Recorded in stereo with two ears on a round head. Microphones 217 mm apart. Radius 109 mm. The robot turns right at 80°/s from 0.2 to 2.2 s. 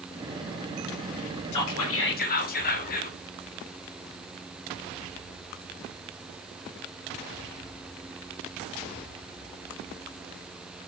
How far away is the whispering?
About 1.1 m.